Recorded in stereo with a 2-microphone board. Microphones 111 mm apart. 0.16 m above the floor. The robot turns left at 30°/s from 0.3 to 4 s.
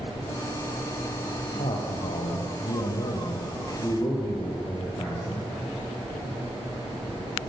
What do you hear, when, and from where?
1.6 s a man speaking: 105° left, 6 m; by 5.5 s 35° left, 6 m